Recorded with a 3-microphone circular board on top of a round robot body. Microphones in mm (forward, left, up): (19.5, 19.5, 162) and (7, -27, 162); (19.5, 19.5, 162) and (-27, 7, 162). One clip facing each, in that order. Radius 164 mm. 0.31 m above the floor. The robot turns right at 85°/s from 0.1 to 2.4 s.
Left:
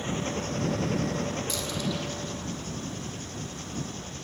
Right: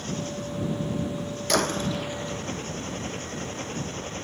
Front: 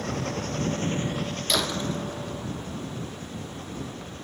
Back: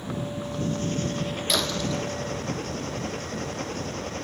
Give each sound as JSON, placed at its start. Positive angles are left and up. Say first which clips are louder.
{"t": 0.0, "sound": "an engine running", "louder": "left 1 dB, front 2 dB", "azimuth_deg": 10}
{"t": 1.5, "sound": "a door slam", "louder": "right 6 dB, even", "azimuth_deg": -75}